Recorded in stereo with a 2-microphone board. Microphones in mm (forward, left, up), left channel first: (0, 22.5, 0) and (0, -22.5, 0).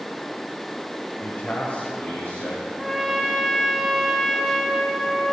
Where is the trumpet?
Centre (ahead or behind), 0.9 m.